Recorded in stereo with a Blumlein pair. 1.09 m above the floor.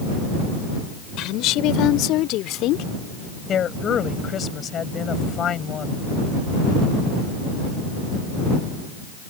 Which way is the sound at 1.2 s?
35° left.